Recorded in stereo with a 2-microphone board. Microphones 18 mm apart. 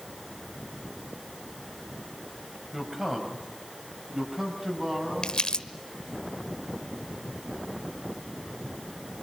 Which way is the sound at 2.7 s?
20° right (ahead or behind).